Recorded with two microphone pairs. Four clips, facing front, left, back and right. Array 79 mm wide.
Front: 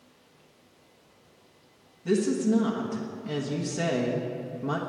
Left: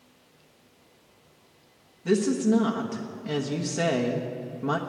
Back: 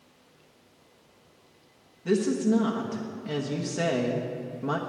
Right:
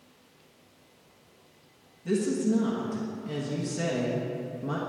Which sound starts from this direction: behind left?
A woman speaking, at 2.0 s.